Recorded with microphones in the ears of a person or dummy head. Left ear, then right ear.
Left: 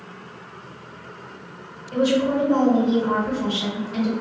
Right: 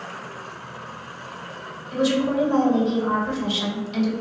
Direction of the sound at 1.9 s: 85° right.